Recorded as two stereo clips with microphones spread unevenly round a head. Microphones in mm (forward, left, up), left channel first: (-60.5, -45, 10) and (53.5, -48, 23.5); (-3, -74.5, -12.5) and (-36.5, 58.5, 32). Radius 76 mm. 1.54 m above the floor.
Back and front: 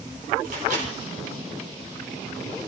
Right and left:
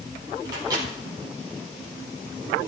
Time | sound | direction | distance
0.5 | a microwave | 40° left | 4.5 m